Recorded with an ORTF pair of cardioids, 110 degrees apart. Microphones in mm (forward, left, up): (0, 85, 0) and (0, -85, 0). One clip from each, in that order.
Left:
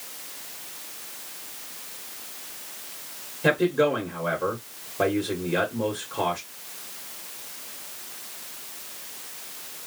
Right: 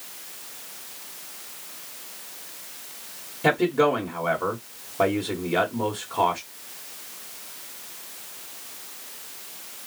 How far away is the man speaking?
About 1.6 m.